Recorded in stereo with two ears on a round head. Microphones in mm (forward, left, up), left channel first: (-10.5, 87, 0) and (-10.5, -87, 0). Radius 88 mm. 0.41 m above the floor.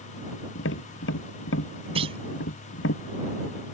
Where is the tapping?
75° left (ahead or behind).